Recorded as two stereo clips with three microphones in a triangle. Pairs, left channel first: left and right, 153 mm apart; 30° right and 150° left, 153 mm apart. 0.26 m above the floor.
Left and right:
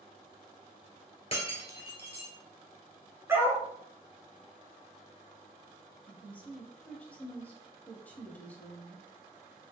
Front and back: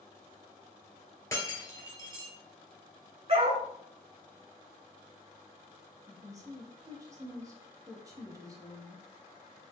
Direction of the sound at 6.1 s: 150° left.